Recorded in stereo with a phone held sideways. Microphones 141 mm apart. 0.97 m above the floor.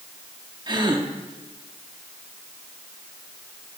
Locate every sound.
0.7 s a gasp: 30° right (ahead or behind), 0.9 m